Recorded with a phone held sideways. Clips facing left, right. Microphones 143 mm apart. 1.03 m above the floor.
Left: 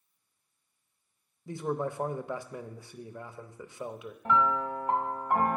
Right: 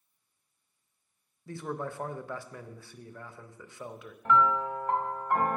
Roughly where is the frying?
No frying in this recording.